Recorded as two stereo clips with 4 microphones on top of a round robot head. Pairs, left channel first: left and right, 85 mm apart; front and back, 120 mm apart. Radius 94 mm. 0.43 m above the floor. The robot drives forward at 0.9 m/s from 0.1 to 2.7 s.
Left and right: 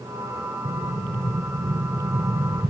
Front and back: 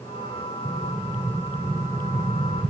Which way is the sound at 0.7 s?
100° right.